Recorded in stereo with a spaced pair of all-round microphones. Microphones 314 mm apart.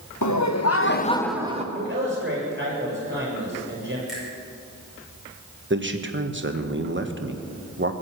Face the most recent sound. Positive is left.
turn(degrees=-35)  # may be behind; listen again after turning